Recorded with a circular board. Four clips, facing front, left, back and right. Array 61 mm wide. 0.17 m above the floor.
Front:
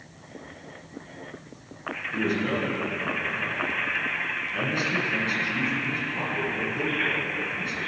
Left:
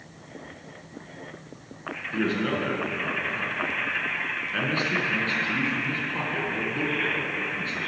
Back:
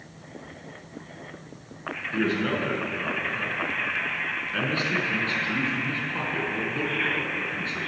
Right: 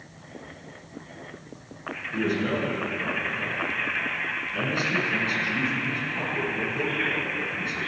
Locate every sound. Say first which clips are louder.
2.1 s a man speaking: even, back 1 dB; 140° left, 2 m